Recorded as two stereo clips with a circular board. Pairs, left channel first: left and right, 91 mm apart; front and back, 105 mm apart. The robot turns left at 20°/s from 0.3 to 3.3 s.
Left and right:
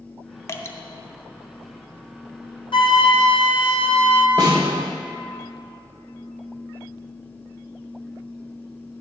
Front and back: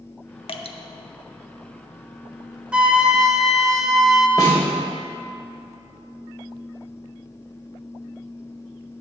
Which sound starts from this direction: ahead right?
A snare drum, at 4.4 s.